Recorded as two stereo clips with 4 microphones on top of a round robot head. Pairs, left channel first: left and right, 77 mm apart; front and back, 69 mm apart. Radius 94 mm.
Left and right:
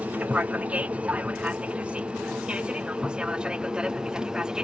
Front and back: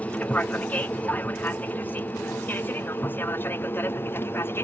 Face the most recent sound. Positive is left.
turn(degrees=-15)